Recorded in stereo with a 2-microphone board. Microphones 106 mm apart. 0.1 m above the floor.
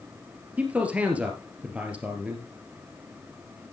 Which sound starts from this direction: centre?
A man speaking, at 0.6 s.